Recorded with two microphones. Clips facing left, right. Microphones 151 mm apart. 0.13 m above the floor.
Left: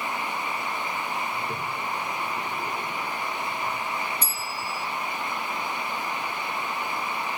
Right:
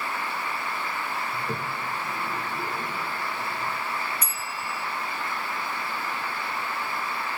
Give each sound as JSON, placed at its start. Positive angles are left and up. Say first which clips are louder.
{"t": 1.3, "sound": "a toilet flushing", "louder": "even", "side_deg": -45, "distance_m": 6.0}
{"t": 4.2, "sound": "a bell", "louder": "left 1 dB", "side_deg": 30, "distance_m": 2.5}